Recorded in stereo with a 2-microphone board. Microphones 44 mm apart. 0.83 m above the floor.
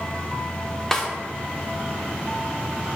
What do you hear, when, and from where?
0.9 s a snare drum: 10° left (ahead or behind), 0.6 m